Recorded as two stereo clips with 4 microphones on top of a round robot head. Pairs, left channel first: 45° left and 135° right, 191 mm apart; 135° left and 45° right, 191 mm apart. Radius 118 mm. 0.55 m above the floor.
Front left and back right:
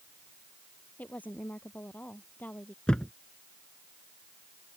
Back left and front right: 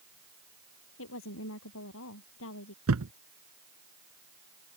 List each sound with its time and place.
1.0 s a woman speaking: 125° left
2.9 s a thud: 45° right